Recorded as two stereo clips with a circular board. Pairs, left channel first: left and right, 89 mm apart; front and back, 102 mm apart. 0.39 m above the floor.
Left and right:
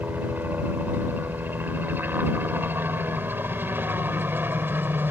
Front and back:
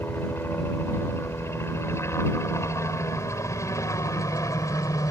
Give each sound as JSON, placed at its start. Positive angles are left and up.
{"t": 0.0, "sound": "a helicopter", "azimuth_deg": -45}